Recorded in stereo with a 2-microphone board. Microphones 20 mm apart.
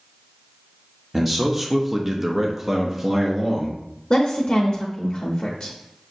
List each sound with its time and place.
1.1 s a man speaking: centre (ahead or behind), 0.6 m; by 3.8 s 10° right (ahead or behind), 1.1 m
4.1 s a woman speaking: 50° left (ahead or behind), 0.7 m